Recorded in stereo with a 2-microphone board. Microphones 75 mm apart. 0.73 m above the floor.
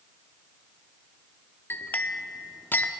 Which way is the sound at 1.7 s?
25° left (ahead or behind).